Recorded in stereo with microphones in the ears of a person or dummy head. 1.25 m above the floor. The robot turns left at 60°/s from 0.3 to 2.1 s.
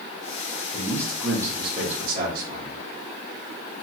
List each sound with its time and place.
0.7 s a man speaking: 25° left, 1.4 m; by 2.8 s 55° right, 1.4 m